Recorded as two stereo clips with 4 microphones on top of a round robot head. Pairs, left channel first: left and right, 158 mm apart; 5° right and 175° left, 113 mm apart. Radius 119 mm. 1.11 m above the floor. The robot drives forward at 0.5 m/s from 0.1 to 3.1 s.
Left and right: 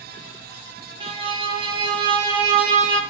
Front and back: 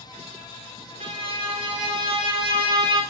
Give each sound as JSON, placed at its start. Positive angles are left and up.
{"t": 1.0, "sound": "a violin", "azimuth_deg": -145, "distance_m": 3.5}